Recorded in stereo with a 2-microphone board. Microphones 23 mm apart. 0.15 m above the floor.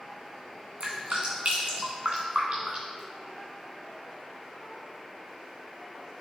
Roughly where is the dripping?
Right.